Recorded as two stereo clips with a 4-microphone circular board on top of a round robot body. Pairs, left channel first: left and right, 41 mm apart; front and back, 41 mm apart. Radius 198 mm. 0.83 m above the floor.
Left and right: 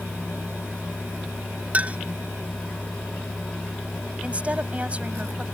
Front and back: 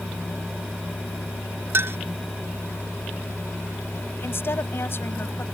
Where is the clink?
150° right.